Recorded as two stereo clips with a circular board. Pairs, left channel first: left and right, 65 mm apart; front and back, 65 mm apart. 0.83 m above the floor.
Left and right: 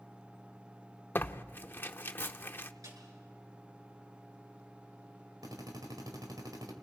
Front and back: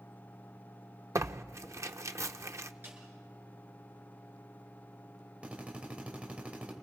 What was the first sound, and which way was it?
Tearing paper, 145° left.